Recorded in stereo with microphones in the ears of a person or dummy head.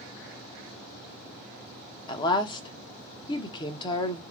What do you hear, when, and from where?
2.1 s a woman speaking: 25° left (ahead or behind), 0.9 m